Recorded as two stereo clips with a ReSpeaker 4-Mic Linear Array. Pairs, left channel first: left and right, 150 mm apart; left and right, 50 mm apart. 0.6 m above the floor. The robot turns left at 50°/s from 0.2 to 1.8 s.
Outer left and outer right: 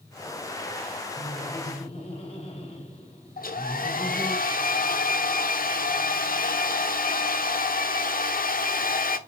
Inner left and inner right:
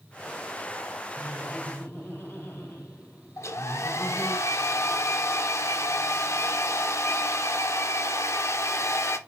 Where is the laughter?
75° left, 3 m; by 4.4 s 45° left, 3 m.